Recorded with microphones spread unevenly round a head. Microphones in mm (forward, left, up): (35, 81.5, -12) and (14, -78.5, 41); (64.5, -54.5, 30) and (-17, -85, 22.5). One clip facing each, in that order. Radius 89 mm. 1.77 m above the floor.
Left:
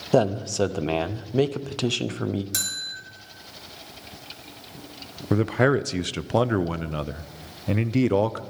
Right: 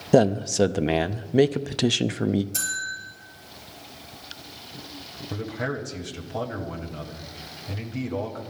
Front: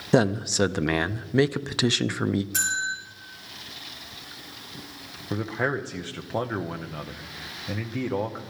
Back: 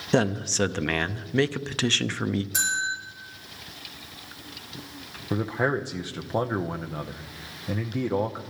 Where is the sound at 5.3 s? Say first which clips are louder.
Left 10 dB, back 2 dB; 115° left, 0.7 m.